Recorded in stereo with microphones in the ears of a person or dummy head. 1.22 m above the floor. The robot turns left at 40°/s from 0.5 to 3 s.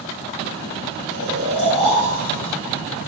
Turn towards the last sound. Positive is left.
turn(degrees=-10)